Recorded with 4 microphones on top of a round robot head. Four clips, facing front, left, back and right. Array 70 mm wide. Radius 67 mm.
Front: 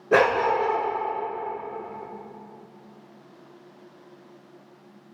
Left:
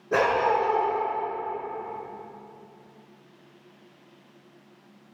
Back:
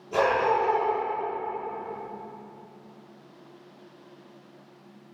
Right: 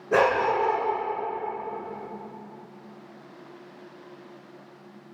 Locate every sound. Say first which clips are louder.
0.1 s a dog barking: right 1 dB, front 3 dB; 10° right, 9.5 m